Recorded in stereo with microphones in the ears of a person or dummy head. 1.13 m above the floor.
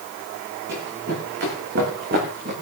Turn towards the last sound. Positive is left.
turn(degrees=-50)  # may be behind; listen again after turning